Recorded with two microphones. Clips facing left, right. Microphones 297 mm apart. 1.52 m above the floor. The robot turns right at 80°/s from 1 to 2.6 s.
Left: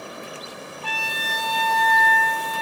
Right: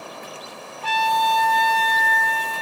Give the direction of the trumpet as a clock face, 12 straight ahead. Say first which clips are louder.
Right 13 dB; 3 o'clock.